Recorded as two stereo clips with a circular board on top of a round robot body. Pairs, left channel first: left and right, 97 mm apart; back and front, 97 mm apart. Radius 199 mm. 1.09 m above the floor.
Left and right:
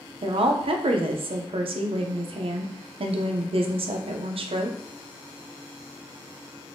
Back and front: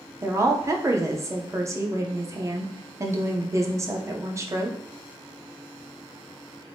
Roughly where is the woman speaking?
Ahead right.